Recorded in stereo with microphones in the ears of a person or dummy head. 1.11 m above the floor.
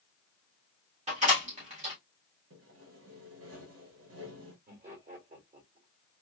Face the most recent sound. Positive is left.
turn(degrees=-40)  # may be behind; listen again after turning